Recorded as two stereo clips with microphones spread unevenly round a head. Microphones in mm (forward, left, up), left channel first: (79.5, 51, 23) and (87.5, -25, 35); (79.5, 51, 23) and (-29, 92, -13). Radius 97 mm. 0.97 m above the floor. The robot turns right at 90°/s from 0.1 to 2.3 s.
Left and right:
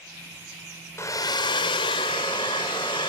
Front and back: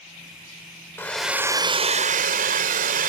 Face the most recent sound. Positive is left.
turn(degrees=160)